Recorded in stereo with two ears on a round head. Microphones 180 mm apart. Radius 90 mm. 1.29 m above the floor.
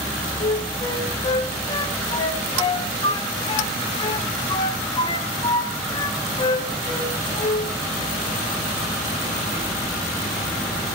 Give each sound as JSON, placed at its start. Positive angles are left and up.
{"t": 0.4, "sound": "a flute", "side_deg": 25, "distance_m": 2.5}